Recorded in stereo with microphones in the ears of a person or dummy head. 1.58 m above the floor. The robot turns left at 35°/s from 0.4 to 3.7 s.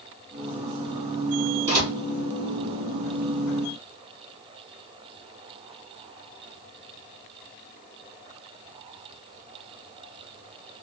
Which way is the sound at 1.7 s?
20° right (ahead or behind).